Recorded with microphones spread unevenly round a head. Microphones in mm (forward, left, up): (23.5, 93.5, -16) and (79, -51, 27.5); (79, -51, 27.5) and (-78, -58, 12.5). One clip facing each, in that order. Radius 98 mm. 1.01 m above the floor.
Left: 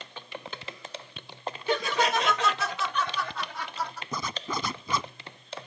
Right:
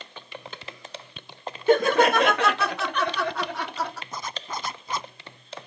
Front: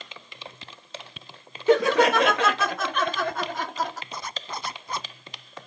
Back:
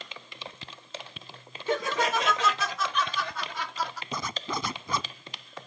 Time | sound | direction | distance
1.7 | laughter | 20° right | ?
4.1 | a zipper | 145° left | ?